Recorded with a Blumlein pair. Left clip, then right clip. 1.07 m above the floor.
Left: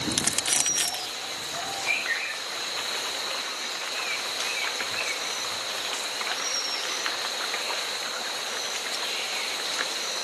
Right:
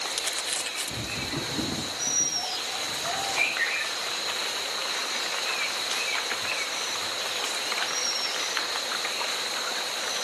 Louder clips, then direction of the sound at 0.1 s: Left 3 dB; 65° left.